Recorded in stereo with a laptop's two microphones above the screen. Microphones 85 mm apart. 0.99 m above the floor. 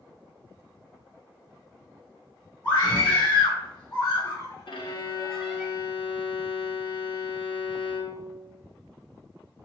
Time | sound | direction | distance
2.6 | a scream | 60° left (ahead or behind) | 1.4 m
4.7 | a violin | 70° left (ahead or behind) | 0.5 m